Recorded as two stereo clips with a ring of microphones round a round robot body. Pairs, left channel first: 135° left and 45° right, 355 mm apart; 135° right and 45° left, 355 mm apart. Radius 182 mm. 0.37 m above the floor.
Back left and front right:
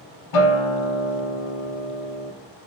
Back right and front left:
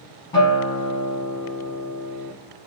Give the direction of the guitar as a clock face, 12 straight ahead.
7 o'clock.